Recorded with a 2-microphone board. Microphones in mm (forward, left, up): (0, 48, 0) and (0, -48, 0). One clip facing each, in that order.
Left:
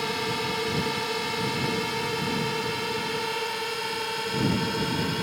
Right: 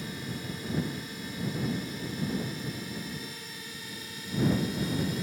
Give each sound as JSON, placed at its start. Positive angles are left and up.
{"t": 0.0, "sound": "a drone", "side_deg": 80}